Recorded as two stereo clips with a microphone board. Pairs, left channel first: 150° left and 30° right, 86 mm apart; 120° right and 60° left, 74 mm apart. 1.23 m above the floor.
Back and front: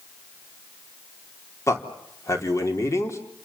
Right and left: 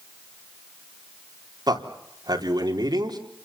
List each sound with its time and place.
1.7 s a man speaking: 95° left, 4 m